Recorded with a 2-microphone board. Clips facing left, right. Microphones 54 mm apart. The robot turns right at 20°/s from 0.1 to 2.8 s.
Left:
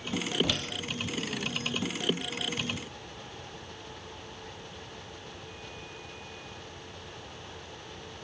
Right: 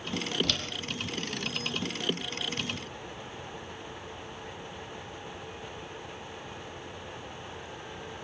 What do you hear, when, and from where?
0.4 s a door slam: 15° left (ahead or behind), 4 m; by 0.7 s 10° left (ahead or behind), 4 m